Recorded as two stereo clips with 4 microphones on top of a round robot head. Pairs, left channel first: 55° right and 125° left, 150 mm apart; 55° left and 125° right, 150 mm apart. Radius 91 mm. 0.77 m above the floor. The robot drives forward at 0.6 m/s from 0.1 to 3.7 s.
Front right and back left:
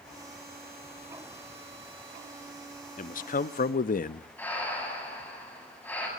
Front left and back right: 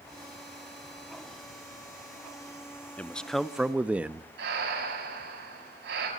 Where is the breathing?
135° right, 7.5 m.